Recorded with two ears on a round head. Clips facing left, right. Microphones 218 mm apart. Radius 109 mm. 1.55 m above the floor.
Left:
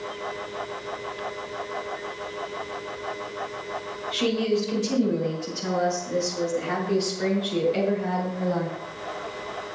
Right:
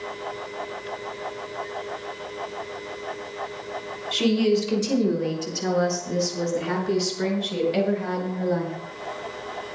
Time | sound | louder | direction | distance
4.1 | a woman speaking | right 3 dB | 55° right (ahead or behind) | 5 m